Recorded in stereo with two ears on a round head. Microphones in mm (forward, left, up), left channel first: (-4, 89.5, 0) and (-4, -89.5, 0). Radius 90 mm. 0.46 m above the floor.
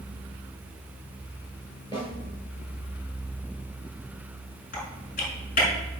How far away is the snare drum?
About 5.5 m.